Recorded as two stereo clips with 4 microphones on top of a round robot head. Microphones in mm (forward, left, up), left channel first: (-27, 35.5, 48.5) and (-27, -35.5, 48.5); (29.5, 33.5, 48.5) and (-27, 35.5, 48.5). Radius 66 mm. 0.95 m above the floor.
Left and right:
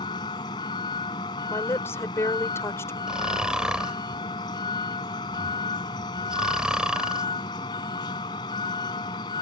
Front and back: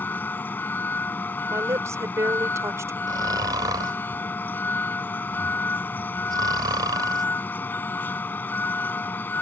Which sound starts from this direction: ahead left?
A vehicle, at 0.0 s.